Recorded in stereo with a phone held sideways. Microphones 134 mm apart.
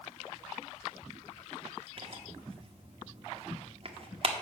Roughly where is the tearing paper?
Right.